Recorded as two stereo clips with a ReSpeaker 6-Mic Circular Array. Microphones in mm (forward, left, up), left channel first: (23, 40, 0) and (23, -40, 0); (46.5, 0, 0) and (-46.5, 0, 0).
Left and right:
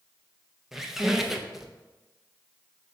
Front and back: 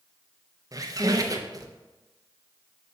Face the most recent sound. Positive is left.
turn(degrees=-175)